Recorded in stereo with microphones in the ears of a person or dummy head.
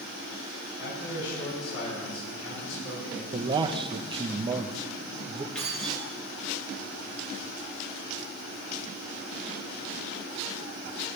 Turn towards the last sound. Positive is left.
turn(degrees=10)  # may be behind; listen again after turning